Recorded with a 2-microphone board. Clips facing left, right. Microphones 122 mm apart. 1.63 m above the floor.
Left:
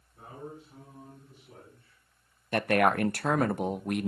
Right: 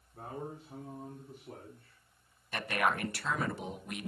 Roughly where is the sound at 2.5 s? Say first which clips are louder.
Left 8 dB; left.